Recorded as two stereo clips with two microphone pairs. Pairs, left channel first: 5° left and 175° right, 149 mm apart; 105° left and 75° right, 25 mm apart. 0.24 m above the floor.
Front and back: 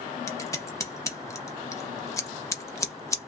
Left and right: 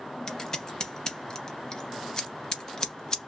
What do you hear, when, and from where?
0.3 s scissors: 60° left, 0.6 m